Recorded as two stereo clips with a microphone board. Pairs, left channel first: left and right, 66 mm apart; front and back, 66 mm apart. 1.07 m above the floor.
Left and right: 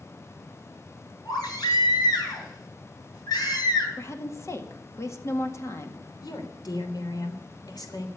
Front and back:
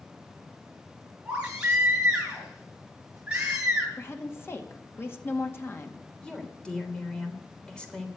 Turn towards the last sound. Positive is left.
turn(degrees=75)